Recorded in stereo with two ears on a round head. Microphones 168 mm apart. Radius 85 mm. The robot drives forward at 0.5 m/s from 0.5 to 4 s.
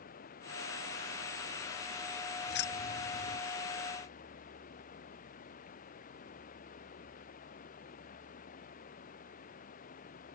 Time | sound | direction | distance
0.0 | running water | 50° left (ahead or behind) | ?
2.5 | keys jangling | 65° left (ahead or behind) | ?